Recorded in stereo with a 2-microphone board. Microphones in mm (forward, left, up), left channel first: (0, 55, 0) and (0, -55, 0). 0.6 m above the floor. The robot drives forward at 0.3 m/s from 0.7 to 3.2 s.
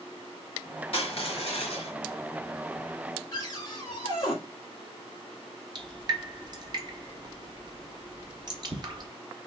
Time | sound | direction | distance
0.9 | crushing | 60° left (ahead or behind) | 1.5 m
3.3 | a cupboard door | 30° left (ahead or behind) | 2 m
5.8 | dripping | 40° right (ahead or behind) | 0.8 m